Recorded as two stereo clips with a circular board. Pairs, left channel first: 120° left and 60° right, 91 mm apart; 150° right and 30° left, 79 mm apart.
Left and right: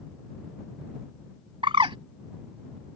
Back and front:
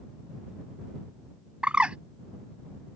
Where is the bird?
45° right.